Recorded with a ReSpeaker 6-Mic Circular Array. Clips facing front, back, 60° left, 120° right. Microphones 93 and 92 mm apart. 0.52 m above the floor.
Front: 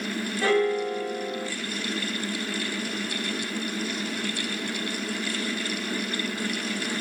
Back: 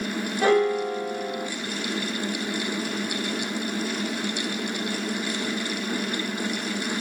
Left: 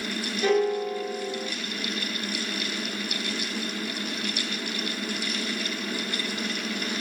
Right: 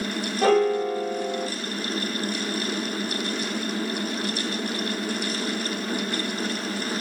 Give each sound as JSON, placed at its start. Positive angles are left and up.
{"t": 0.4, "sound": "a piano", "azimuth_deg": -120, "distance_m": 1.2}